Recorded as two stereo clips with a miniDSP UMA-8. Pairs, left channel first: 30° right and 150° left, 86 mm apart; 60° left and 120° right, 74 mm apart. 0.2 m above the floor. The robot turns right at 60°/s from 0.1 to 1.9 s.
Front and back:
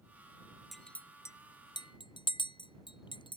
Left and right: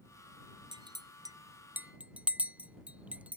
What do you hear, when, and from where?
0.7 s a clink: 120° right; by 3.4 s 50° right